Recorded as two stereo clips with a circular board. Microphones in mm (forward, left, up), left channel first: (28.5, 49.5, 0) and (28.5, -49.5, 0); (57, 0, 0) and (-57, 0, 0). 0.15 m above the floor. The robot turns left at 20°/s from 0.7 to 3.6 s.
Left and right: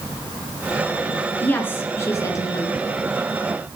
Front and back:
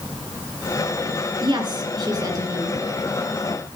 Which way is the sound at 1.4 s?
155° left.